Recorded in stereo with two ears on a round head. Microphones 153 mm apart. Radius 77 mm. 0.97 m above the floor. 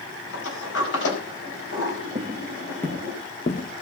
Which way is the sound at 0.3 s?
70° left (ahead or behind).